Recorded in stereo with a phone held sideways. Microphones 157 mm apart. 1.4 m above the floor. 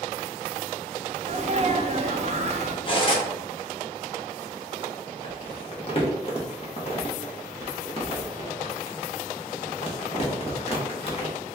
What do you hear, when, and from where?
1.2 s a sneeze: 45° right (ahead or behind), 0.6 m
2.9 s cutlery clinking: 35° left (ahead or behind), 0.9 m
5.2 s crumpling: 40° left (ahead or behind), 0.9 m